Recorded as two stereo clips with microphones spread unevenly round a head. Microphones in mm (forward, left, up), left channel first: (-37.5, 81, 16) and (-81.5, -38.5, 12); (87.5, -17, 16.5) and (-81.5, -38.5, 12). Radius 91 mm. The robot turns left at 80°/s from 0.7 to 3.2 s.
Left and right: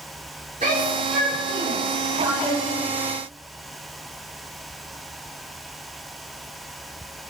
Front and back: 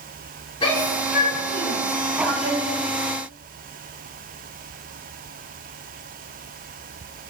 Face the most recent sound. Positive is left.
turn(degrees=130)